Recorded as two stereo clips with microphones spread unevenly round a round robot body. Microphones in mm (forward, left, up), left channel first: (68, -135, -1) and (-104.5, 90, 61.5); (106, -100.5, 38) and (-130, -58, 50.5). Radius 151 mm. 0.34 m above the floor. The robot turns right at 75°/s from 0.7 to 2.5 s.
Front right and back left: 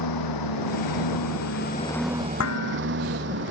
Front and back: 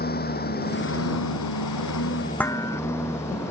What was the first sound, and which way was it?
A lawn mower, 65° right.